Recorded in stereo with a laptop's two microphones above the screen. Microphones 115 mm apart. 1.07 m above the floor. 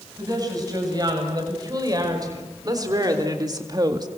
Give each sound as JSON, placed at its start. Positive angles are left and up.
{"t": 0.2, "sound": "a woman speaking", "side_deg": -35, "distance_m": 8.0}